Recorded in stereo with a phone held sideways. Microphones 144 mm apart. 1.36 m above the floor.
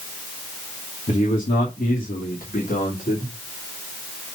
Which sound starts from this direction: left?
A man speaking, at 1.1 s.